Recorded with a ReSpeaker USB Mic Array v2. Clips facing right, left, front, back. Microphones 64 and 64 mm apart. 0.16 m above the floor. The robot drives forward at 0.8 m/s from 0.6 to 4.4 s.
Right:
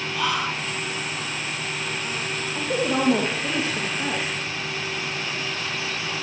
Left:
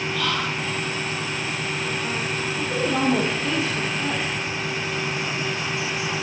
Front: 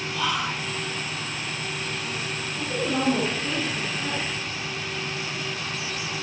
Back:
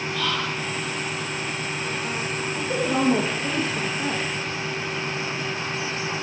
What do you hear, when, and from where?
0.1 s whispering: 45° right, 1.4 m; by 0.7 s 55° right, 1.3 m
2.5 s a woman speaking: 130° right, 4 m; by 4.2 s 140° right, 5 m